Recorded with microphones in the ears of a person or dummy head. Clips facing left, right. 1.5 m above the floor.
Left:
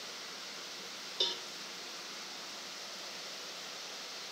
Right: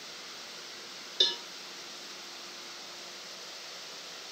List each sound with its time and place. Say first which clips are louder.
1.2 s a cowbell: right 3 dB; 20° right (ahead or behind), 0.9 m